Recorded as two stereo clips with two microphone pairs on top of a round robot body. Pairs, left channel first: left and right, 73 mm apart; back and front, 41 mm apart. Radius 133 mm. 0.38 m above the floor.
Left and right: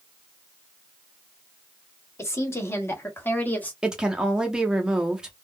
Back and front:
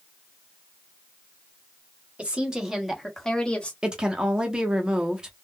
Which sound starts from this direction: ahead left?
A woman speaking, at 2.2 s.